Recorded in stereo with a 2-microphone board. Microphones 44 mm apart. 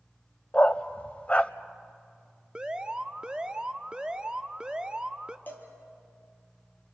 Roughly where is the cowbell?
Left.